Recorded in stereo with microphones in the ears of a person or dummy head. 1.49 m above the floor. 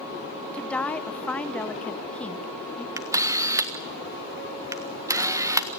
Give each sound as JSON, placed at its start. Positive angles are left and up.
{"t": 0.5, "sound": "a woman speaking", "side_deg": 10, "distance_m": 0.8}
{"t": 3.0, "sound": "a camera shutter", "side_deg": -10, "distance_m": 1.5}